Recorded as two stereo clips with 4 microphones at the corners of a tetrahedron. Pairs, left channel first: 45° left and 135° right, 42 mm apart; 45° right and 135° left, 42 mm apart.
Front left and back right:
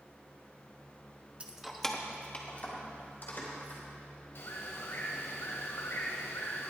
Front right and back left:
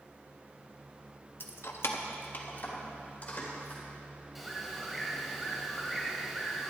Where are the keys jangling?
70° right, 0.8 m; by 3.8 s 10° left, 3 m.